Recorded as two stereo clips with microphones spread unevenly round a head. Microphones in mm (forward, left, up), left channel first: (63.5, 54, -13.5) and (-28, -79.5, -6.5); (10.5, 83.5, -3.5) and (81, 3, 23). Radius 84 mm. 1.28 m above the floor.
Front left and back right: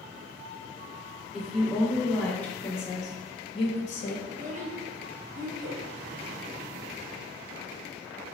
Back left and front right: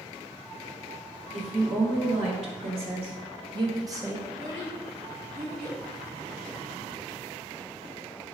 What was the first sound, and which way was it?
A woman speaking, 40° right.